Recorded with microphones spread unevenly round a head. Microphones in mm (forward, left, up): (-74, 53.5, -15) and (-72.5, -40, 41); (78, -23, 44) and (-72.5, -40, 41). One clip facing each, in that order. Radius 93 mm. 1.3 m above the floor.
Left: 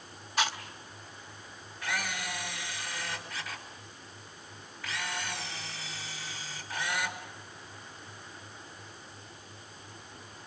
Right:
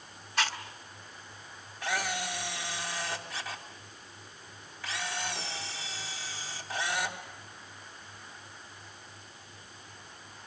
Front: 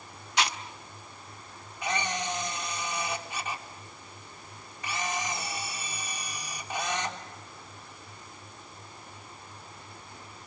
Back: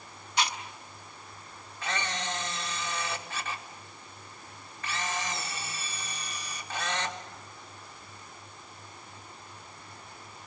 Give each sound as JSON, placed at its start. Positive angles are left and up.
{"t": 0.4, "sound": "chewing", "azimuth_deg": -15, "distance_m": 1.5}
{"t": 1.8, "sound": "a camera shutter", "azimuth_deg": -70, "distance_m": 3.5}